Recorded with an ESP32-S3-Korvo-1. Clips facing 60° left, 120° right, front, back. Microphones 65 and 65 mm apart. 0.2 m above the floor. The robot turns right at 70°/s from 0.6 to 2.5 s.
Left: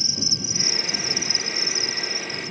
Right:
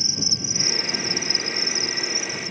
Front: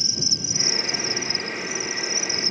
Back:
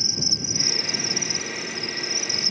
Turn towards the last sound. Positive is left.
turn(degrees=-30)